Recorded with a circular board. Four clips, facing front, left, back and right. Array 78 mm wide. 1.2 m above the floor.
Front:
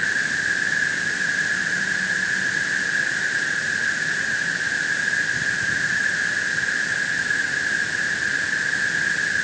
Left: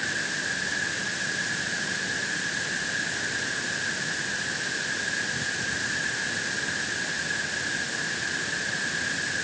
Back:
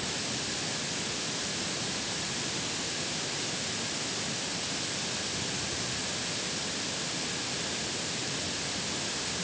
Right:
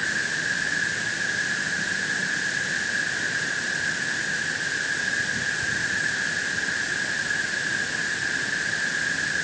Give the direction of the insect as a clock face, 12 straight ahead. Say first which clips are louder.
Right 3 dB, front 14 dB; 12 o'clock.